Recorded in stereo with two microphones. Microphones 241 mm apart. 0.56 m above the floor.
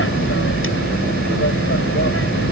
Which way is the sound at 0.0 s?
55° left (ahead or behind).